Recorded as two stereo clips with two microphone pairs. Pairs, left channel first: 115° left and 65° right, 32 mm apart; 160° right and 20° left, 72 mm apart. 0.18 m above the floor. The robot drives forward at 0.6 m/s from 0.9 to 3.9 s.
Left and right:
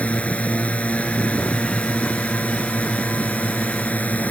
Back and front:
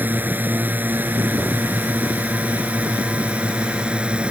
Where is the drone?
80° left; by 4.3 s 95° left.